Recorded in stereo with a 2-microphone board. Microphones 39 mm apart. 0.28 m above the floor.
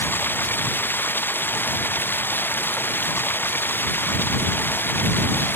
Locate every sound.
0.0 s running water: 65° left (ahead or behind)